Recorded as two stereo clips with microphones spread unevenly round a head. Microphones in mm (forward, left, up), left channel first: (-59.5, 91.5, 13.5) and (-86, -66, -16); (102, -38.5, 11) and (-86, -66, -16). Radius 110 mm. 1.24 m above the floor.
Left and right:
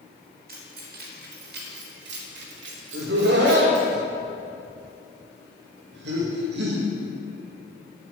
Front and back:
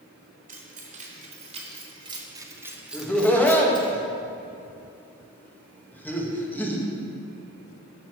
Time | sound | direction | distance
0.5 | keys jangling | 125° right | 3 m
2.9 | laughter | 75° right | 1.8 m